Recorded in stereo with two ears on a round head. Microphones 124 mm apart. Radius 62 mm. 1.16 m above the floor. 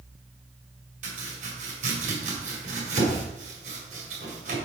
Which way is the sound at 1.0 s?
65° right (ahead or behind).